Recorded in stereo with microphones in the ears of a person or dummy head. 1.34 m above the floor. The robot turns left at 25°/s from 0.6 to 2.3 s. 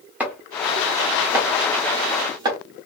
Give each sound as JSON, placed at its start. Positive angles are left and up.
{"t": 0.2, "sound": "chopping", "side_deg": -15, "distance_m": 0.9}